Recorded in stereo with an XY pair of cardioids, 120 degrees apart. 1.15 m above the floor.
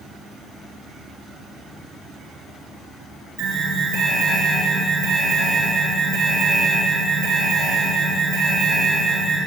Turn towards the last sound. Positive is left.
turn(degrees=-70)